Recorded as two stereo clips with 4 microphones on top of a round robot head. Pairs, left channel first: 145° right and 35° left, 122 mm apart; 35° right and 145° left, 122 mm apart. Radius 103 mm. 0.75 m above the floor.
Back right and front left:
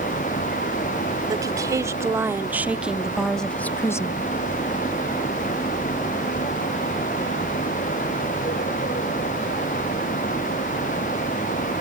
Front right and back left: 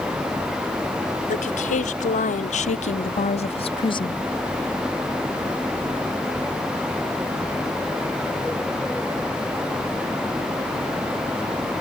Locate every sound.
1.3 s a woman speaking: 25° right; by 4.2 s 90° right